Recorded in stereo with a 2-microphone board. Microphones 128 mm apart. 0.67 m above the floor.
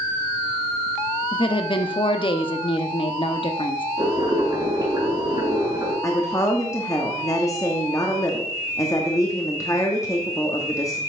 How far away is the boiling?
About 3.5 m.